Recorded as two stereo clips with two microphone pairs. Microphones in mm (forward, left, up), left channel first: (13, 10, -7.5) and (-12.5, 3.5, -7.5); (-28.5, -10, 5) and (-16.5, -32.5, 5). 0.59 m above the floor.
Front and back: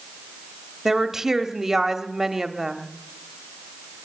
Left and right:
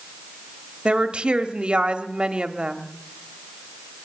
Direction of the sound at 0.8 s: 90° right.